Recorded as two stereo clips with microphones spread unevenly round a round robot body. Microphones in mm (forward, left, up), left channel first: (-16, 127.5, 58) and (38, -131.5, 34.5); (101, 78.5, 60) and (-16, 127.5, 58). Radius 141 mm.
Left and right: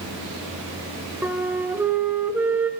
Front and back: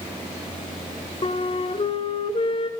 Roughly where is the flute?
Ahead.